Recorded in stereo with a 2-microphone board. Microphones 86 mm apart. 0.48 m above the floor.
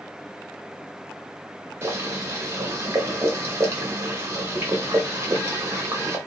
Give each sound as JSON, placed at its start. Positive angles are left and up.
{"t": 1.8, "sound": "boiling", "side_deg": -30, "distance_m": 1.3}